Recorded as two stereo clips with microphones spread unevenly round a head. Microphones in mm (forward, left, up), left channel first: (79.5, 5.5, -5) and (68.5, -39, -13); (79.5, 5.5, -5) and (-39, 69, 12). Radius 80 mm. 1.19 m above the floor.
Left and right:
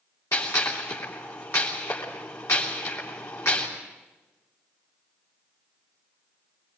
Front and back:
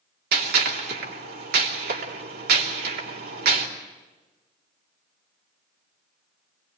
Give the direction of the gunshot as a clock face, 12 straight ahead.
7 o'clock.